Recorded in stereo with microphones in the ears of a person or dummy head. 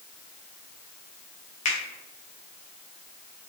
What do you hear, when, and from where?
1.6 s a finger snap: 40° left (ahead or behind), 0.6 m